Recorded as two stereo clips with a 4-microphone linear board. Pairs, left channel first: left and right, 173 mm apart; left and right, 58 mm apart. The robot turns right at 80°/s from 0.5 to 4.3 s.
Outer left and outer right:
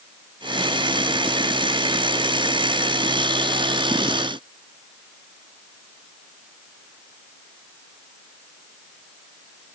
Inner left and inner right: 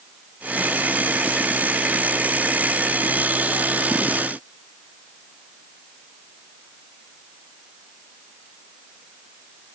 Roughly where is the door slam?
No door slam in this recording.